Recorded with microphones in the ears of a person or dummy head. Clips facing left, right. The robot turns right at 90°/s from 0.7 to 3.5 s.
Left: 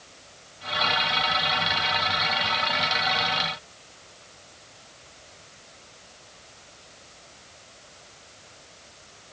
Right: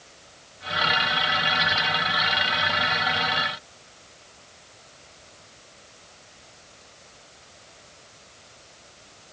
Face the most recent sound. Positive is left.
No sound to turn to.